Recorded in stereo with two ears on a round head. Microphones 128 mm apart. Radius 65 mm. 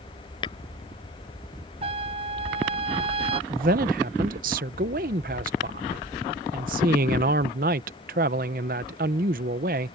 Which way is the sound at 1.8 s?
40° right (ahead or behind).